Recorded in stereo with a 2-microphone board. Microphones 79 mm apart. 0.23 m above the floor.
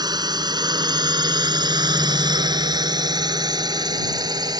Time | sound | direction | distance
0.0 | a drone | 60° right (ahead or behind) | ?